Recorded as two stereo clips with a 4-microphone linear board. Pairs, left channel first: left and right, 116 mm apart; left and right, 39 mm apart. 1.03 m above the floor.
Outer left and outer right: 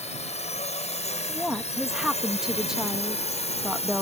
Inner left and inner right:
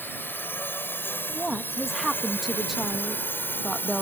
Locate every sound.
0.0 s a drone: 70° left (ahead or behind); by 4.0 s 65° left (ahead or behind)
1.3 s a woman speaking: 5° right (ahead or behind)